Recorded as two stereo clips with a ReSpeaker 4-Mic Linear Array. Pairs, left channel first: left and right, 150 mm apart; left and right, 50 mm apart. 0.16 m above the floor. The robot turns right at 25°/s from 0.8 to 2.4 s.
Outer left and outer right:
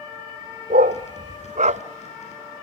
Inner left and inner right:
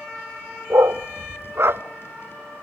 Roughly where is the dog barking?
Right.